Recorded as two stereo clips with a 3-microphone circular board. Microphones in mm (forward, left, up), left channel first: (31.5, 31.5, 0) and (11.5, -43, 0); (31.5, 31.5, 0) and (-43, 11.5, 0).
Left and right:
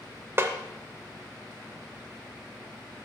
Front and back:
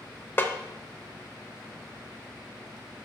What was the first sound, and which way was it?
A snare drum, 45° right.